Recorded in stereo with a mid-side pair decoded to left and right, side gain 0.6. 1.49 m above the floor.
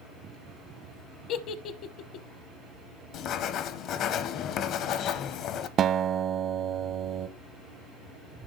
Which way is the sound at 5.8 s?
50° right.